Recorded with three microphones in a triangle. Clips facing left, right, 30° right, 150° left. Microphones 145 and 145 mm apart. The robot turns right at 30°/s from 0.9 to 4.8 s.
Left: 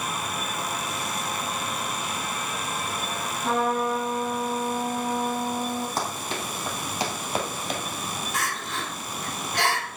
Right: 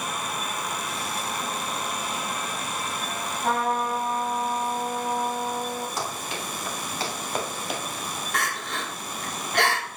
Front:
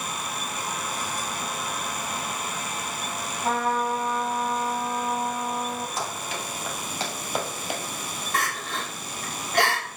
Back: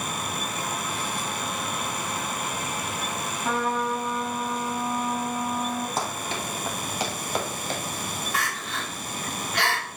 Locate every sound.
3.4 s a trumpet: 85° right, 2.5 m; by 5.9 s 40° right, 2.5 m
6.0 s running footsteps: 125° left, 2 m; by 7.8 s 20° right, 1.6 m
8.3 s crying: 70° right, 2 m